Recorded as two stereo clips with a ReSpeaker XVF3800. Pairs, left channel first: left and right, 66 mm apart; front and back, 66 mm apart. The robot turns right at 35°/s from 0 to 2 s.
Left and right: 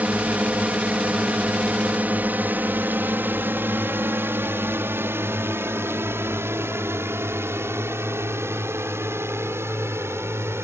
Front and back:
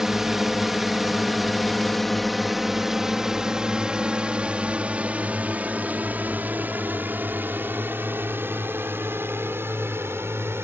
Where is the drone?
105° right; by 10.6 s 135° right.